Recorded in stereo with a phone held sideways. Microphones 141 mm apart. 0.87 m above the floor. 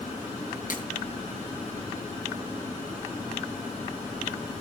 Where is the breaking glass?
70° left (ahead or behind), 5 m.